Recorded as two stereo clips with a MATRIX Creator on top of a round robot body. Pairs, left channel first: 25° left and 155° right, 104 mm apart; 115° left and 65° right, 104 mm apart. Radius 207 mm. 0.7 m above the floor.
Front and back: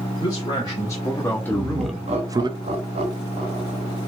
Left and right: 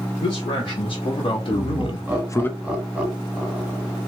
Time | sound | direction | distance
0.2 | a man speaking | 75° left | 2.0 m
1.5 | laughter | 145° right | 1.6 m